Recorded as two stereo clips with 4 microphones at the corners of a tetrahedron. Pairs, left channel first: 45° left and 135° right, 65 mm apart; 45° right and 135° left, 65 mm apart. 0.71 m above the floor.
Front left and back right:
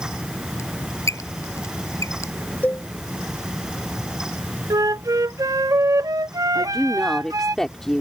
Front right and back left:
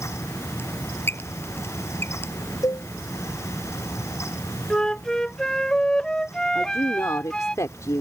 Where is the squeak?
5° left.